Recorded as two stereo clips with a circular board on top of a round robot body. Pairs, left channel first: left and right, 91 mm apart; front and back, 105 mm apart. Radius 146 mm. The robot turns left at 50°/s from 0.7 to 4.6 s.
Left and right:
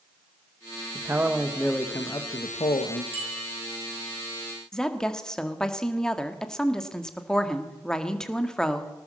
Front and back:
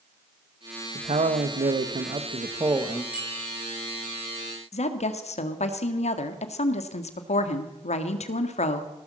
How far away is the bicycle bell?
About 8 m.